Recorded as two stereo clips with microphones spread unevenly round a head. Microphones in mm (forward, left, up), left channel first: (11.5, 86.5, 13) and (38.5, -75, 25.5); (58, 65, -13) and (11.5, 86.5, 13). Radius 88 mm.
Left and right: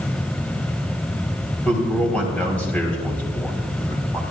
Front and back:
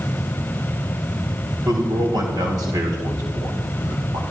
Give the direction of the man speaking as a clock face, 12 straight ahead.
6 o'clock.